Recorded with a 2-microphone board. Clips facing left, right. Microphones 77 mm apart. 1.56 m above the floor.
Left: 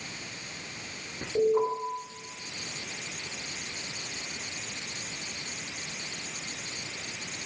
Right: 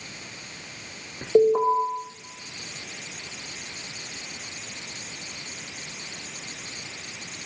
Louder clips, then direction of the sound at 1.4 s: Right 7 dB; 75° right (ahead or behind).